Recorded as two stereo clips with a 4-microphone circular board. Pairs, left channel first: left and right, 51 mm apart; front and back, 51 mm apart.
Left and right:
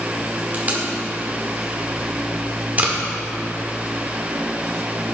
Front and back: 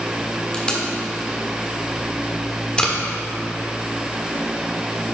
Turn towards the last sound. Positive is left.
turn(degrees=-60)